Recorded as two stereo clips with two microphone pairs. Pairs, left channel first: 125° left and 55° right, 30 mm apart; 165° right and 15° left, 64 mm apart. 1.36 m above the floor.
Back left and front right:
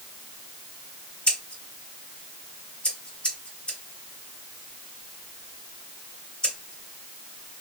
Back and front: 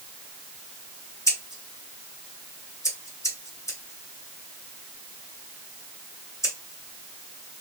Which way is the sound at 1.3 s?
175° left.